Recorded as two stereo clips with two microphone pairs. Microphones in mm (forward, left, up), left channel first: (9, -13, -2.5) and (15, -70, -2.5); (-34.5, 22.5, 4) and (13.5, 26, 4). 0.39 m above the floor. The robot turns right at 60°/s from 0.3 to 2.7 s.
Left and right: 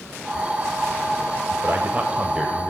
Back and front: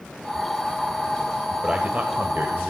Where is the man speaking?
60° right, 2 m; by 2.7 s 5° left, 2 m.